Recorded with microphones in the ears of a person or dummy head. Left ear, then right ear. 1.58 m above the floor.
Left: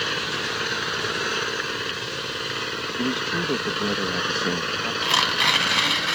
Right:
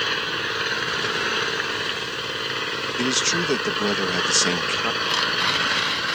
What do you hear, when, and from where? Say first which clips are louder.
0.0 s an engine running: right 2 dB; 15° right (ahead or behind)
3.0 s a man speaking: right 4 dB; 85° right
5.0 s tearing paper: left 5 dB; 25° left (ahead or behind)